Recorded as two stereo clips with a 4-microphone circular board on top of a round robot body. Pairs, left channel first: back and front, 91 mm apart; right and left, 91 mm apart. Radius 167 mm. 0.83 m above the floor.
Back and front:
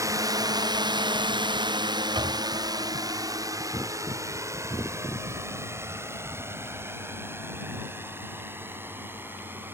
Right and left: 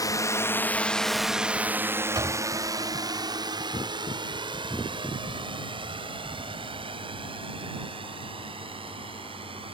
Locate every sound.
0.0 s a drone: 50° right; by 9.8 s 70° left
2.1 s a door slam: 40° left